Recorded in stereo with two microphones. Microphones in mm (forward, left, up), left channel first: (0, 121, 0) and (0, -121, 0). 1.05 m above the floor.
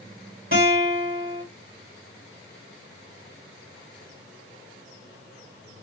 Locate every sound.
0.5 s a guitar: 55° right (ahead or behind), 3.5 m